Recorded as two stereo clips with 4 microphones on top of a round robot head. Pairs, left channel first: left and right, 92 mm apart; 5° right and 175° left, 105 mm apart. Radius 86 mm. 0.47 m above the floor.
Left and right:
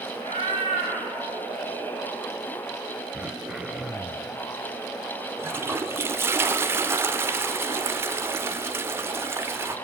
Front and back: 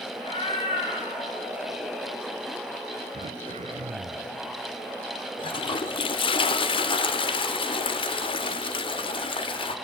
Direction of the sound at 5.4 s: 30° right.